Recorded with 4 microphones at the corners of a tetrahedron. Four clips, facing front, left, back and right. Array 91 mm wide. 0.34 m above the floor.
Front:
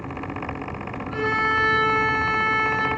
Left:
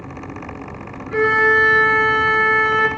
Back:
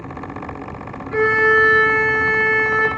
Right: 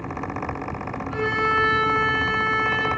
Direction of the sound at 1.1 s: 130° left.